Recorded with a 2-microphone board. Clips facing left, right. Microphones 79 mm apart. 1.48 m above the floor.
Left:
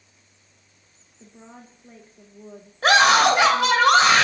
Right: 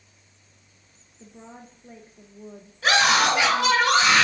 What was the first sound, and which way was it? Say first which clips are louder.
A woman speaking: right 1 dB; 5° right (ahead or behind).